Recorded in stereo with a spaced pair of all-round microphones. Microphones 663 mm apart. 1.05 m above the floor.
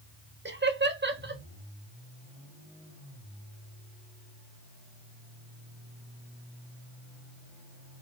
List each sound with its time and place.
0.5 s laughter: 15° right (ahead or behind), 0.7 m